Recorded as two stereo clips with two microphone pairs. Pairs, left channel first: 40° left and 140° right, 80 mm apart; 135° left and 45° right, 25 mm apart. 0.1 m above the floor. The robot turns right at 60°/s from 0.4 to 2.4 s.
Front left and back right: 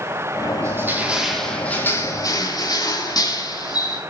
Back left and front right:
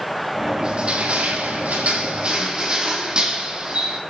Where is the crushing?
95° right, 4 m; by 4.0 s 10° left, 4 m.